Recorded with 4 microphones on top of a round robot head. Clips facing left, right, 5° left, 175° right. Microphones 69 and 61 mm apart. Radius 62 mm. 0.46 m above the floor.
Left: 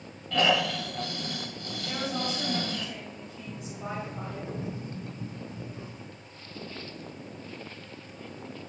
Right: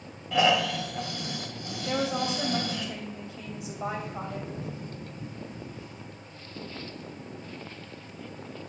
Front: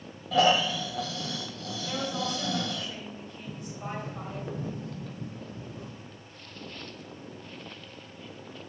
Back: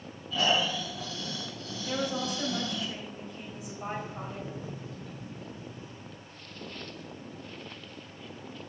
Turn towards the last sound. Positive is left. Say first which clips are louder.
# right 3 dB, even
turn(degrees=25)